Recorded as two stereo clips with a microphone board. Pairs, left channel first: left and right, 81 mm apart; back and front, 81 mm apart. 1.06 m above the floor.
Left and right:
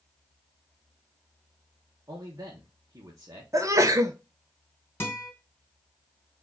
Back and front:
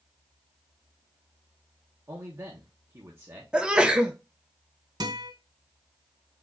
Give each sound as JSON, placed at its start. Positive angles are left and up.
{"t": 2.1, "sound": "a man speaking", "azimuth_deg": -50, "distance_m": 1.1}
{"t": 3.5, "sound": "a sneeze", "azimuth_deg": -70, "distance_m": 0.9}
{"t": 5.0, "sound": "a guitar", "azimuth_deg": 25, "distance_m": 2.5}